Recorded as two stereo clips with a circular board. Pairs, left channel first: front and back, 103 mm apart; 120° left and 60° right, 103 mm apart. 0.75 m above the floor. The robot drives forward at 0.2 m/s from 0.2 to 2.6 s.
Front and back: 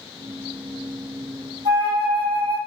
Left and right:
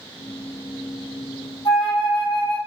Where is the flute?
160° left, 1.3 m; by 2.6 s 165° left, 1.5 m.